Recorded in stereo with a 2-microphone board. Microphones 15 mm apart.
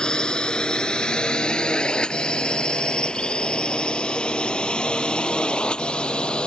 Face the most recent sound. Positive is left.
turn(degrees=75)  # may be behind; listen again after turning